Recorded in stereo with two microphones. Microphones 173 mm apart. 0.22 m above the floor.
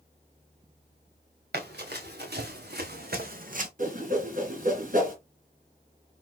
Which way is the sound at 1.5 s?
85° right.